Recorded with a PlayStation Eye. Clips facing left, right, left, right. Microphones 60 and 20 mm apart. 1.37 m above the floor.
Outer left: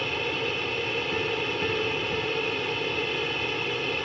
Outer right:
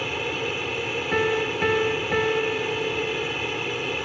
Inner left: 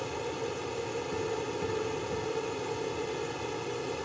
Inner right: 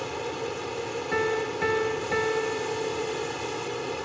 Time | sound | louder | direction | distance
0.0 | an aircraft | outer right 1 dB, inner right 3 dB | 5° right (ahead or behind) | ?
1.1 | a piano | outer right 5 dB, inner right 10 dB | 60° right (ahead or behind) | ?